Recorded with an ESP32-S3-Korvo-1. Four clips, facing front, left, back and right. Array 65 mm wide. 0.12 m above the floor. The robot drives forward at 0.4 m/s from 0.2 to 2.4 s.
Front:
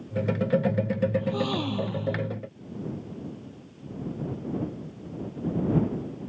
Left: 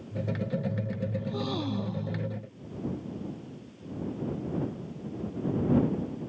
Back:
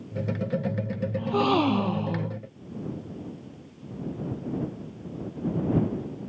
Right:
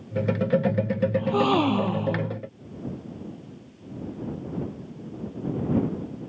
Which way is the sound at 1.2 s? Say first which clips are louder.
Right 13 dB, back 5 dB; 125° right.